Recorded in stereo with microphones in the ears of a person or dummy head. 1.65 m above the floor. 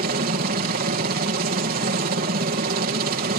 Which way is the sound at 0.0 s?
50° right (ahead or behind).